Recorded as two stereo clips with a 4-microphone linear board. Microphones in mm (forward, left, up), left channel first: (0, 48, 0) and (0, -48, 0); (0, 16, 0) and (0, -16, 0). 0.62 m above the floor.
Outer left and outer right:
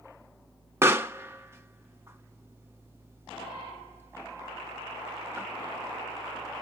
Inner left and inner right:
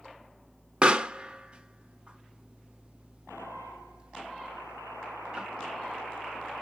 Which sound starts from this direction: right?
A pop, at 0.8 s.